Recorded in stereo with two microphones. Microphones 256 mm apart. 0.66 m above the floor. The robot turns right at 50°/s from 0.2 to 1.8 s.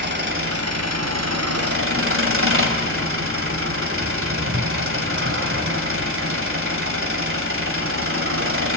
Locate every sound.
0.0 s an engine running: 135° right, 1.8 m; by 8.8 s 55° right, 1.8 m